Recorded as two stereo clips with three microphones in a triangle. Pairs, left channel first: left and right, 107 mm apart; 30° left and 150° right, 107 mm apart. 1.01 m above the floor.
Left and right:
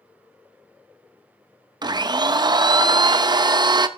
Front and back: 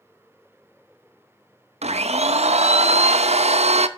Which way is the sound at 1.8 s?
140° right.